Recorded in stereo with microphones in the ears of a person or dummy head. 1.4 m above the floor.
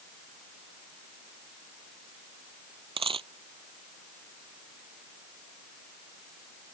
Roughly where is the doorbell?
I don't hear a doorbell.